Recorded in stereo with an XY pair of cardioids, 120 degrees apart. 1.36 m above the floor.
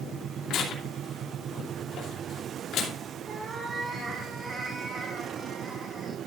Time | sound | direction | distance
0.5 | tearing paper | 65° left | 3 m
3.3 | a cat meowing | 30° right | 5.5 m